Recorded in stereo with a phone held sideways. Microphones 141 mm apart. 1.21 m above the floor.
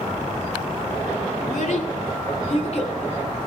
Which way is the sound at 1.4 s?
70° left (ahead or behind).